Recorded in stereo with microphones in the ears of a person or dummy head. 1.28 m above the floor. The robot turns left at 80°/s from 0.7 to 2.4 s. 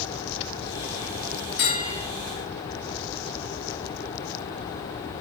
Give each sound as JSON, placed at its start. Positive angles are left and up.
{"t": 1.6, "sound": "a bell", "azimuth_deg": 55, "distance_m": 1.9}